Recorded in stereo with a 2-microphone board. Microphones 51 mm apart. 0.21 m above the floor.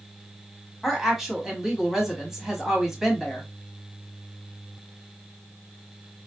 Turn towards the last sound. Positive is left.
turn(degrees=-5)  # may be behind; listen again after turning